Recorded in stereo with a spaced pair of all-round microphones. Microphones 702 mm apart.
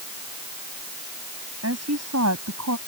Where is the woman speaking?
20° right (ahead or behind); by 2.8 s 25° right (ahead or behind).